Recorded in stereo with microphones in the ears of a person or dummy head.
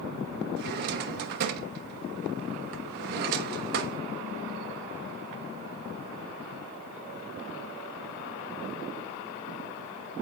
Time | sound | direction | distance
0.6 | a drawer | 55° right (ahead or behind) | 1.0 m